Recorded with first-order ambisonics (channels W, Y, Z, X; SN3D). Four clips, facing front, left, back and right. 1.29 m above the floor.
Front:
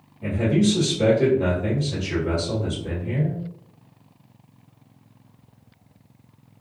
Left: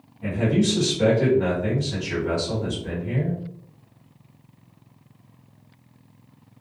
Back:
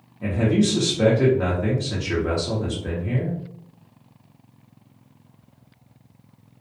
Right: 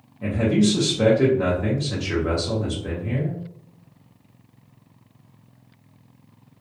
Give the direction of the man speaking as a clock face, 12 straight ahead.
5 o'clock.